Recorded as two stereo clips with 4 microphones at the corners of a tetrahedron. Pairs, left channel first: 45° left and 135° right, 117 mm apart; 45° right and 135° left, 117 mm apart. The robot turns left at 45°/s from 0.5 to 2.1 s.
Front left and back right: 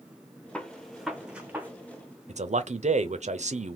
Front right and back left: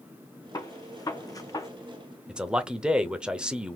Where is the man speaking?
145° right, 0.6 m.